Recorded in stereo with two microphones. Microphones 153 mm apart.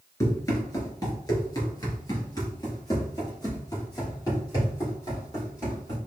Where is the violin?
I don't hear a violin.